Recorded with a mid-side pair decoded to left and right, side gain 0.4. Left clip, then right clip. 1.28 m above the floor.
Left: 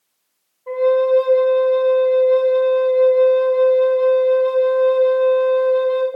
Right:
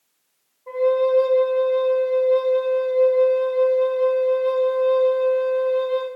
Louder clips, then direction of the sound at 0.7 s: Left 3 dB; 35° left.